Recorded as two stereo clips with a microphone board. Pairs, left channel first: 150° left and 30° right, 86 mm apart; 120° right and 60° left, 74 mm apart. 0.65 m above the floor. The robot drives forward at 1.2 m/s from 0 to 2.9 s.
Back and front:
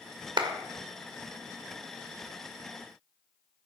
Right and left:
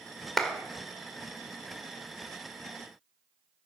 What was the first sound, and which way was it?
A clap, 30° right.